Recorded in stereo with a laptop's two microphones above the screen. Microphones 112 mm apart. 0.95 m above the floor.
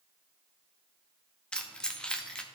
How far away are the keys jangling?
About 0.5 m.